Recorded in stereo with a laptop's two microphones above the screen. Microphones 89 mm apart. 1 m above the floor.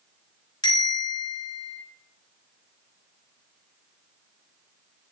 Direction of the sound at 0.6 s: 55° left (ahead or behind).